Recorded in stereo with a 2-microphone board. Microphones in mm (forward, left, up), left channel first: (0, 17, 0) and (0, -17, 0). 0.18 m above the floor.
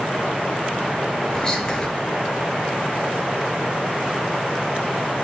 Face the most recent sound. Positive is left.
turn(degrees=20)  # may be behind; listen again after turning